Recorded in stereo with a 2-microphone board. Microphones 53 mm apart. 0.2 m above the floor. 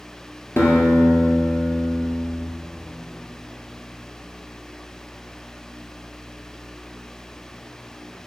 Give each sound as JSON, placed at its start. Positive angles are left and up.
{"t": 0.6, "sound": "a guitar", "side_deg": 40, "distance_m": 1.6}